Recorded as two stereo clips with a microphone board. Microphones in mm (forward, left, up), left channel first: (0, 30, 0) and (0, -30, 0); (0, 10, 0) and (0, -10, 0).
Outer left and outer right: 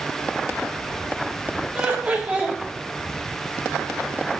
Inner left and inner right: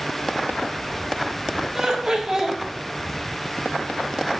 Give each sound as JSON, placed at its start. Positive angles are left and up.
{"t": 1.8, "sound": "laughter", "side_deg": -25, "distance_m": 1.9}